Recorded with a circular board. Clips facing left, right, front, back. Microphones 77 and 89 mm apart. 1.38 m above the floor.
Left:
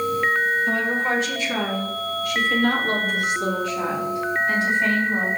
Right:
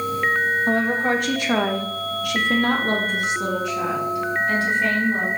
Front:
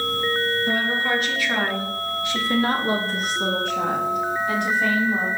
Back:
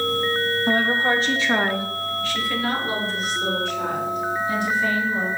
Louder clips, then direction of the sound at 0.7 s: Right 2 dB, back 3 dB; 135° right.